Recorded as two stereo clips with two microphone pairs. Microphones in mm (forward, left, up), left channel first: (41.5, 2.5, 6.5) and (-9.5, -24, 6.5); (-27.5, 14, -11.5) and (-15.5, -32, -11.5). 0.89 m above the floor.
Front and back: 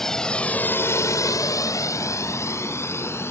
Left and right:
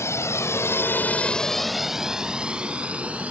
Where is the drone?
110° left; by 3.3 s 15° right.